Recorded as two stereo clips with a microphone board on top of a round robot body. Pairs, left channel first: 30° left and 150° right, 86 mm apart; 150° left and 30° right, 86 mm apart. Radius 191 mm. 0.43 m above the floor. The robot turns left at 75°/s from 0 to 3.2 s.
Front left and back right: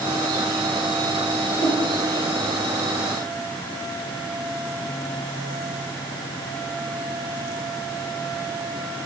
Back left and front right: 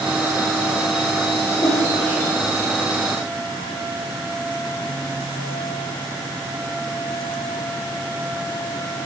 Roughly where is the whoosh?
Left.